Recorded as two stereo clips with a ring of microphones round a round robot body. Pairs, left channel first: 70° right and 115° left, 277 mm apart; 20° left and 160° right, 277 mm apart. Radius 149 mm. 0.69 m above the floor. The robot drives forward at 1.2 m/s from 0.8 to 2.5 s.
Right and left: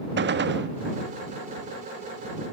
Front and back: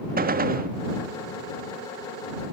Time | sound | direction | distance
0.2 | a gunshot | 150° left | 1.2 m